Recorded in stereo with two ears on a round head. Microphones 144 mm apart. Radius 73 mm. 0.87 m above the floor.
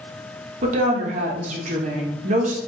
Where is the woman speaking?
50° right (ahead or behind), 1.0 m.